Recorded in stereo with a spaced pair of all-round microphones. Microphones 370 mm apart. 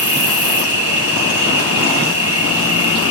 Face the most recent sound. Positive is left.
turn(degrees=40)  # may be behind; listen again after turning